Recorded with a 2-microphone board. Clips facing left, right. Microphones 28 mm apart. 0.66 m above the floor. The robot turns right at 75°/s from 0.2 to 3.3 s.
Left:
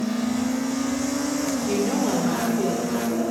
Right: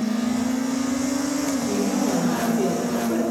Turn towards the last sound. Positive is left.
turn(degrees=-120)